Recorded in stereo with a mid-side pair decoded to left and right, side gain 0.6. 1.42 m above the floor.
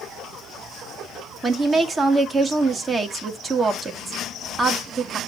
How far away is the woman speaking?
About 1.9 m.